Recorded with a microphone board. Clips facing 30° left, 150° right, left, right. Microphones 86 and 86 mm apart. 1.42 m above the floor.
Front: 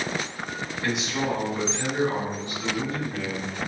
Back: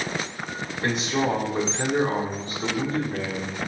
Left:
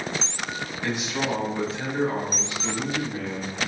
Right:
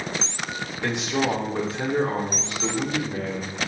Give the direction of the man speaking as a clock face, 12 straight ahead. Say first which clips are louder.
Back 3 dB, right 4 dB; 3 o'clock.